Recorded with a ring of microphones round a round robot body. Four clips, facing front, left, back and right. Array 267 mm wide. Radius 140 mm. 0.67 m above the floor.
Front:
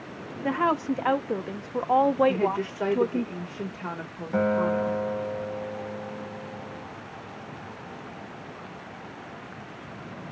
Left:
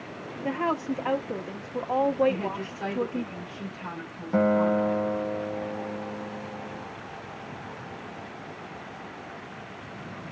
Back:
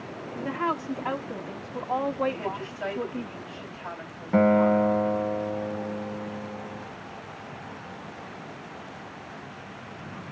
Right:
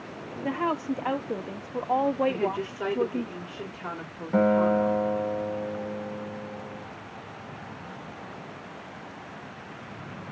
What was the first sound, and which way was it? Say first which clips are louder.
A woman speaking: even, front 4 dB; 5° right.